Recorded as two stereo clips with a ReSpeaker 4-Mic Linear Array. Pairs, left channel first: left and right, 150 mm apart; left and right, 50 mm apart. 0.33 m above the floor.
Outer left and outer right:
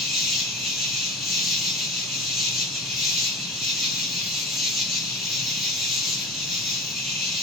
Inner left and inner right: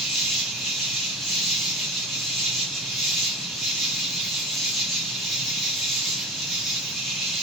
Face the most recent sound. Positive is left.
turn(degrees=0)  # may be behind; listen again after turning